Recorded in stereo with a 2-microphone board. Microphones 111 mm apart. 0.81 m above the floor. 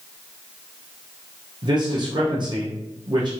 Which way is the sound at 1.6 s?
45° right (ahead or behind).